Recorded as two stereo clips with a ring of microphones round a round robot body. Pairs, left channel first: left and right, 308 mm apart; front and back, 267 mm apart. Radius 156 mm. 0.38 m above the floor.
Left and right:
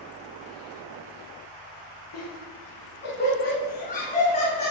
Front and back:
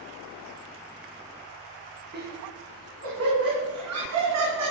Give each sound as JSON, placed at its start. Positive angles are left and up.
{"t": 2.1, "sound": "laughter", "azimuth_deg": 130, "distance_m": 3.5}